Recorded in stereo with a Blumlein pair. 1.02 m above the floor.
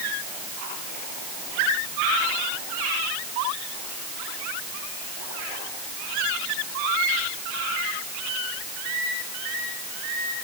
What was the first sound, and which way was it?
Only background noise.